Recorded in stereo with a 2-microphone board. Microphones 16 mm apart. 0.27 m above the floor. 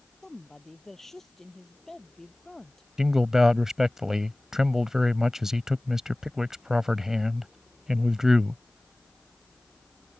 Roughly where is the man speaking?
Right.